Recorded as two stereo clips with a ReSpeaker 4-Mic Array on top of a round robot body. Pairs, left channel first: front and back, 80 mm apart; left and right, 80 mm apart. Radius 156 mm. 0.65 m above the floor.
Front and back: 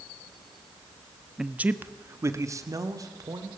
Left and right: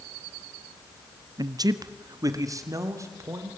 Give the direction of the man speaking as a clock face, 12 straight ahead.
3 o'clock.